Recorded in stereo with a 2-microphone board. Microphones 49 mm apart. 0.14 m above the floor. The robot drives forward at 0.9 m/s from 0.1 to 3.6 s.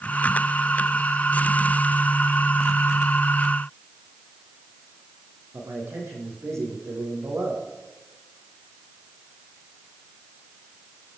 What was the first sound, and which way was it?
A man speaking, 65° right (ahead or behind).